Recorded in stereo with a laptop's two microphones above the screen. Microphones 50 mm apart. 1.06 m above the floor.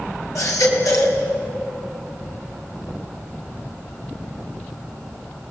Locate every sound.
0.3 s a baby crying: 70° left (ahead or behind), 3.5 m